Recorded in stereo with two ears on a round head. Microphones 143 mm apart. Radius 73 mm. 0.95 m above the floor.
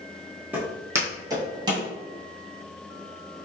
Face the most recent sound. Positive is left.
turn(degrees=-30)  # may be behind; listen again after turning